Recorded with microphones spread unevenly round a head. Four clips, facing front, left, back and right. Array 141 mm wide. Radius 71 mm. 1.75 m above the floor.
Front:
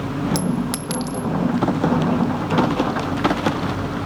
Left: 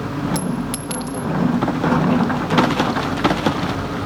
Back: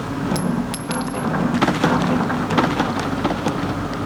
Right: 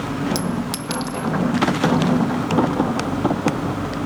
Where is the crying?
I don't hear crying.